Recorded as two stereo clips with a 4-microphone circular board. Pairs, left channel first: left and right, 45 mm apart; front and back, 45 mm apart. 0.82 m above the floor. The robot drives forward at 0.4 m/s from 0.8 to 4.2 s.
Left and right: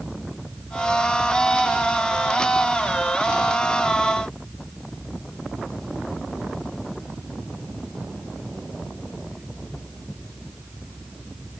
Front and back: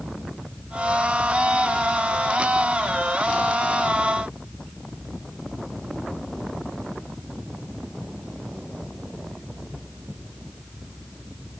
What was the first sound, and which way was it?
Only background noise.